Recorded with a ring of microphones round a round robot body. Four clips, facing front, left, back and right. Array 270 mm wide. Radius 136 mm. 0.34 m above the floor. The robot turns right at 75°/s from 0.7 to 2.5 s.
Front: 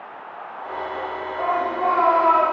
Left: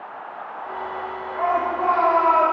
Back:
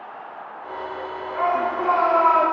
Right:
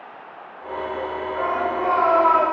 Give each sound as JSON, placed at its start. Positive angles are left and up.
{"t": 1.3, "sound": "a shout", "azimuth_deg": 170, "distance_m": 4.5}